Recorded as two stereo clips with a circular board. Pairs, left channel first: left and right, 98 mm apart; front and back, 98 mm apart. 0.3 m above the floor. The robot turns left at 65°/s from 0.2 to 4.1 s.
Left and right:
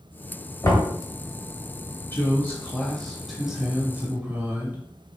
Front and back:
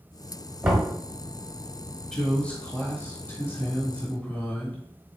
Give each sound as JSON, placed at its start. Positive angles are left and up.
{"t": 0.6, "sound": "knocking", "azimuth_deg": 115, "distance_m": 1.5}
{"t": 2.1, "sound": "a woman speaking", "azimuth_deg": 75, "distance_m": 1.2}